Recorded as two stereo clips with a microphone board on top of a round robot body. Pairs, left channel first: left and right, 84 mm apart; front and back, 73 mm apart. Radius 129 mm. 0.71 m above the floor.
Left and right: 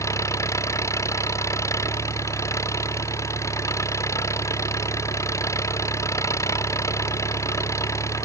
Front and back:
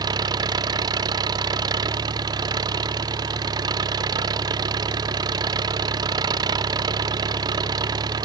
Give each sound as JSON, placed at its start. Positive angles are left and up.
{"t": 0.0, "sound": "an engine running", "azimuth_deg": 150}